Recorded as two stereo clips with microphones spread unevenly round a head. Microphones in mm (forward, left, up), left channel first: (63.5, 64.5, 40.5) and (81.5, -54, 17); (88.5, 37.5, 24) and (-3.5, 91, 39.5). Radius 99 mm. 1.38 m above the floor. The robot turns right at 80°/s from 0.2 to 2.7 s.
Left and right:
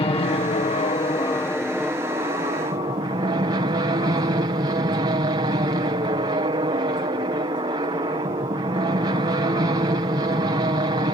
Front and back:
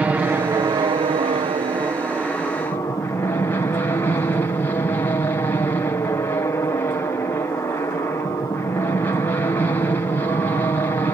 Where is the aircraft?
75° left; by 11.1 s 85° right.